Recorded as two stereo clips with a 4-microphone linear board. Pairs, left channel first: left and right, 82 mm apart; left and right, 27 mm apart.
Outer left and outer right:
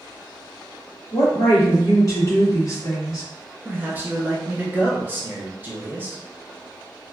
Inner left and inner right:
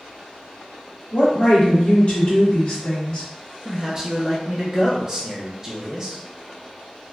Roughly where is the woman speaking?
Left.